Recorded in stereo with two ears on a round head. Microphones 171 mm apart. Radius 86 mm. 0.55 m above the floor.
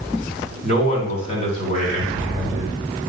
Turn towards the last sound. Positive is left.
turn(degrees=35)  # may be behind; listen again after turning